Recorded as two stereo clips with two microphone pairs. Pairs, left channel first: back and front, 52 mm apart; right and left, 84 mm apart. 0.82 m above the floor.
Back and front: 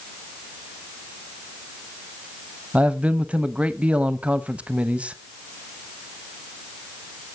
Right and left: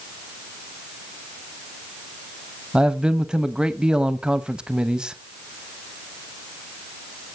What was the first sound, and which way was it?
A man speaking, 20° left.